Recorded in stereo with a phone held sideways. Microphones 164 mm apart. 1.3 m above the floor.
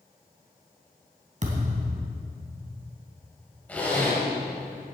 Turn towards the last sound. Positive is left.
turn(degrees=10)  # may be behind; listen again after turning